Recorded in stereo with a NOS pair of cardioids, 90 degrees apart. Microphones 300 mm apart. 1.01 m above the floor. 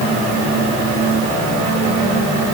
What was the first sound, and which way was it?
Only background noise.